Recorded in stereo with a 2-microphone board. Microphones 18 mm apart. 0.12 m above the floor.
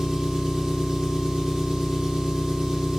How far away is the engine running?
About 4 m.